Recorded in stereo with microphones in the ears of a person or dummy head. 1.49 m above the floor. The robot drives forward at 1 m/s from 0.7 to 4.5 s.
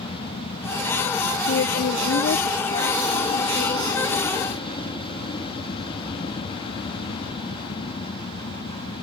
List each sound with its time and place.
0.0 s an aircraft: 25° left (ahead or behind); by 9.0 s 20° left (ahead or behind)
1.5 s a woman speaking: 55° left (ahead or behind); by 4.4 s 30° left (ahead or behind)